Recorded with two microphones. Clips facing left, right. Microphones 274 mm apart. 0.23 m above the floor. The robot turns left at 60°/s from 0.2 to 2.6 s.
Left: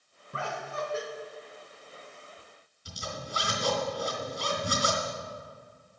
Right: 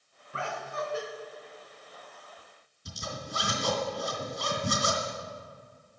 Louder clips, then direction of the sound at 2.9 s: Even; 50° right (ahead or behind).